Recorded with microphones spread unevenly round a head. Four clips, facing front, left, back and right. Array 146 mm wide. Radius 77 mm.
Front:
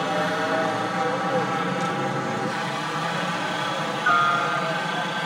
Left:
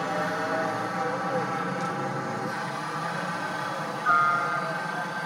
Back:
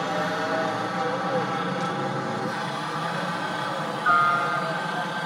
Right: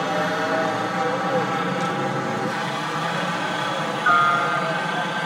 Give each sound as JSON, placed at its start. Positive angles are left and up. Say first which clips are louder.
{"t": 0.0, "sound": "a helicopter", "louder": "right 5 dB, front 2 dB", "azimuth_deg": -65}